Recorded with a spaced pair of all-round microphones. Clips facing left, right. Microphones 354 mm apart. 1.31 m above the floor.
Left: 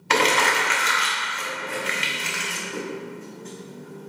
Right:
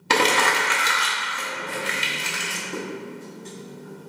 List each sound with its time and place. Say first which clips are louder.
0.1 s crumpling: even; 55° right (ahead or behind), 0.6 m